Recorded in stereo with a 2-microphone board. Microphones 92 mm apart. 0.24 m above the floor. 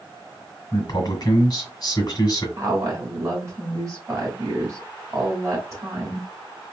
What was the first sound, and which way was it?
A man speaking, 50° left (ahead or behind).